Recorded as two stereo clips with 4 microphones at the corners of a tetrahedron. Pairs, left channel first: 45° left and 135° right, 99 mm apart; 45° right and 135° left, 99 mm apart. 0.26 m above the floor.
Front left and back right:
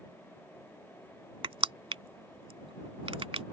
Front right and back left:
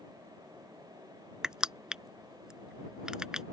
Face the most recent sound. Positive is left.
turn(degrees=-145)